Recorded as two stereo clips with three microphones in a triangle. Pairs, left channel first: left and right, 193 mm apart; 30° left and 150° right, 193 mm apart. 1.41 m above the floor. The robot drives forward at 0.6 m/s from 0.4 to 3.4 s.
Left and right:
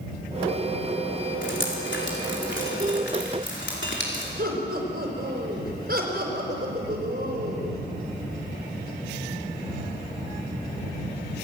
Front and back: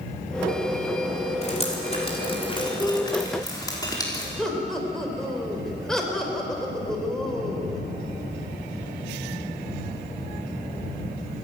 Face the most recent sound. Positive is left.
turn(degrees=-60)